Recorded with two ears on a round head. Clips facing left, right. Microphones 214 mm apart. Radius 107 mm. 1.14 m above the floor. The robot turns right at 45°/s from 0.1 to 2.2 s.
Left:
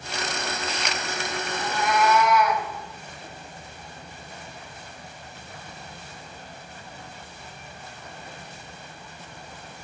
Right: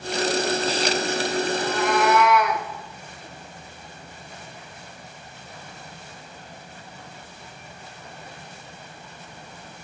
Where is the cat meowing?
40° right (ahead or behind), 1.0 m; by 2.7 s 50° right (ahead or behind), 1.0 m.